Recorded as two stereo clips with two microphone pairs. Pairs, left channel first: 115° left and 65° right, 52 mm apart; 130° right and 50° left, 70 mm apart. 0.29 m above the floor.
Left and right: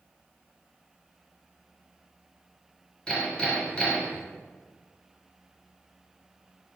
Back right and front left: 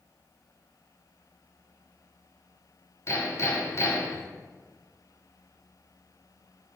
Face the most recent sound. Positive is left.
turn(degrees=-170)